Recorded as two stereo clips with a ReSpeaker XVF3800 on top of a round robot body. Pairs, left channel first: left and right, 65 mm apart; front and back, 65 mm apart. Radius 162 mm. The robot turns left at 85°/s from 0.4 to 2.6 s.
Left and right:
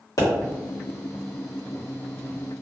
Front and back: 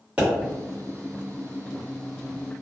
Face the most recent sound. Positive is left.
turn(degrees=-75)